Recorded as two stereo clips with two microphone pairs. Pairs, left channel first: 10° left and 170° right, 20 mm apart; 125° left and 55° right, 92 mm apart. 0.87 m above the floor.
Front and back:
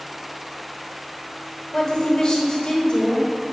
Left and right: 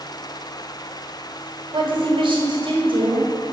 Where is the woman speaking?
40° right, 3 m.